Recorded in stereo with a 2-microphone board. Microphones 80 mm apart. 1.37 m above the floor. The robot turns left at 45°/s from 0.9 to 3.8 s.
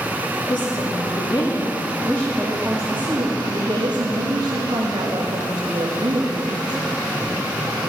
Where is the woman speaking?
70° left, 3 m; by 6.8 s 60° right, 3 m.